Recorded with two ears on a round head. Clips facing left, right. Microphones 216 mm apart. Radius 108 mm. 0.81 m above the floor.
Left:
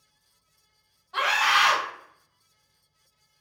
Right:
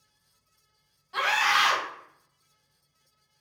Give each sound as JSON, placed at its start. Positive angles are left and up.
{"t": 1.1, "sound": "a scream", "side_deg": -45, "distance_m": 1.5}